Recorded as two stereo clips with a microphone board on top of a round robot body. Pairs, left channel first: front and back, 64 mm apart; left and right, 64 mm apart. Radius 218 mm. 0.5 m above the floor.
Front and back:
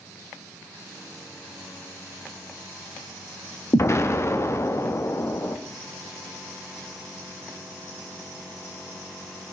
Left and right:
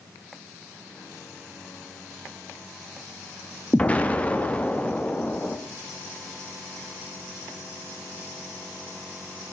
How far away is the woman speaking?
I don't hear a woman speaking.